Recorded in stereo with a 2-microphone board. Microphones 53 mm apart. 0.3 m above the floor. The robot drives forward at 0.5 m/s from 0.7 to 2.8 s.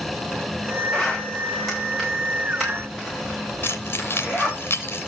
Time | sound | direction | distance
0.9 | a zipper | 5° right (ahead or behind) | 7.5 m
3.6 | keys jangling | 45° left (ahead or behind) | 2 m